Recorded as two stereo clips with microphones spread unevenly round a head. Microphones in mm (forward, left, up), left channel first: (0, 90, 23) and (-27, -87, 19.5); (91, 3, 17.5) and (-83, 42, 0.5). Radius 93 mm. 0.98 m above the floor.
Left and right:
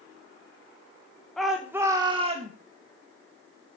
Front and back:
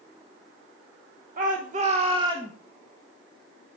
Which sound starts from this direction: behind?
A shout, at 1.4 s.